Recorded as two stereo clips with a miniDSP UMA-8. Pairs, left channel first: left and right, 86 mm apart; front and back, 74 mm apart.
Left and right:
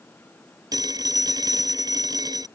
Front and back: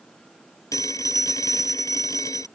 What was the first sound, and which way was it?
A phone ringing, 45° right.